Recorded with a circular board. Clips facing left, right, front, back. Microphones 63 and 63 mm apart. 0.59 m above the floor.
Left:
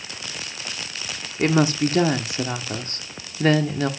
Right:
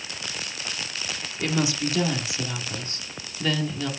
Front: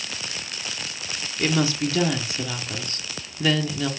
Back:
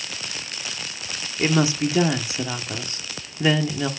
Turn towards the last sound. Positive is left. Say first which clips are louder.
# left 7 dB, back 2 dB
turn(degrees=115)